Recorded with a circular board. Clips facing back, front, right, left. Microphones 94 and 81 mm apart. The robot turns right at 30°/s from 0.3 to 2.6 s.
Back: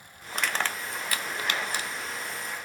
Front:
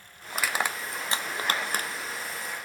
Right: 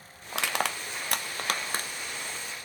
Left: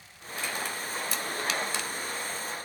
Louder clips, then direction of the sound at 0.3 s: Front 1 dB, right 4 dB; 90° right.